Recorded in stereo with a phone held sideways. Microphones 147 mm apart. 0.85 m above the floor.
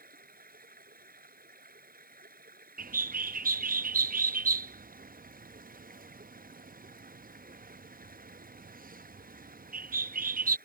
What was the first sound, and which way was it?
Running water, 80° right.